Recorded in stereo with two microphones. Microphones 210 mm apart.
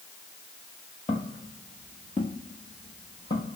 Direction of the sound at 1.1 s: 30° left (ahead or behind).